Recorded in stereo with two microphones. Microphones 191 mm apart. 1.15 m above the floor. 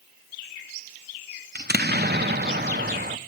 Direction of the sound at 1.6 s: 60° right (ahead or behind).